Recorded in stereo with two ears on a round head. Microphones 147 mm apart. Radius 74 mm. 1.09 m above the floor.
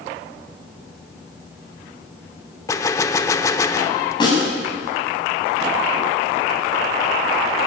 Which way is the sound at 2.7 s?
20° left (ahead or behind).